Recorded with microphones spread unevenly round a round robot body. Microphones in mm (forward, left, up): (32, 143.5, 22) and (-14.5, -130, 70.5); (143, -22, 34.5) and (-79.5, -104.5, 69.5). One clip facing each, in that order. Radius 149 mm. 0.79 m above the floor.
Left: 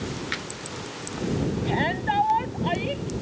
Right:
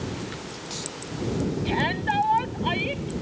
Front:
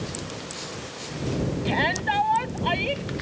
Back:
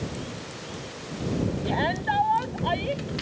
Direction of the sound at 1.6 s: 30° right.